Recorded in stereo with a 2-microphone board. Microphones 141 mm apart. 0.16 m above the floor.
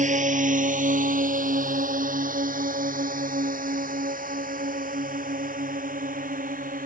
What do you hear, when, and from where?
0.0 s a drone: 65° right (ahead or behind); by 6.9 s 80° right